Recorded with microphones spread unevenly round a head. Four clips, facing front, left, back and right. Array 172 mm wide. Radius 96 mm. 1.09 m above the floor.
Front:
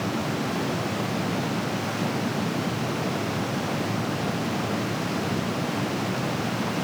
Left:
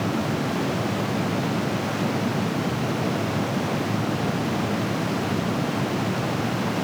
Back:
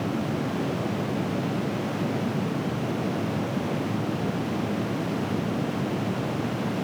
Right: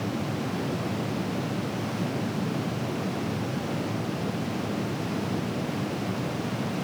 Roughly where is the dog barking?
No dog barking in this recording.